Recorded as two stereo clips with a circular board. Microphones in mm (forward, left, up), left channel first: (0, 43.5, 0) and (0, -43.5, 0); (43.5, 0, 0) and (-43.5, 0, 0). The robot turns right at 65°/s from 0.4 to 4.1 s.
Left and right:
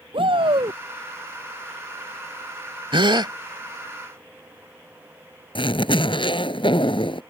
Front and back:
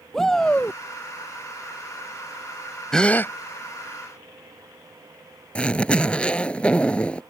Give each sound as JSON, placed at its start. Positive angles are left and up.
{"t": 0.1, "sound": "a shout", "azimuth_deg": -85}
{"t": 2.9, "sound": "a gasp", "azimuth_deg": -85}
{"t": 5.5, "sound": "a zipper", "azimuth_deg": 75}